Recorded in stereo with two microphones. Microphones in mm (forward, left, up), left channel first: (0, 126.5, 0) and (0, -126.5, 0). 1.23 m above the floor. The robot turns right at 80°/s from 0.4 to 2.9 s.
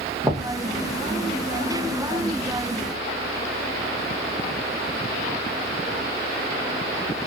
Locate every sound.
0.2 s knocking: 15° right (ahead or behind), 1.1 m; by 0.5 s 5° right (ahead or behind), 1.1 m